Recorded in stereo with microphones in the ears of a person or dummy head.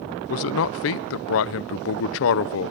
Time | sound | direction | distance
0.3 | a man speaking | 60° left (ahead or behind) | 0.7 m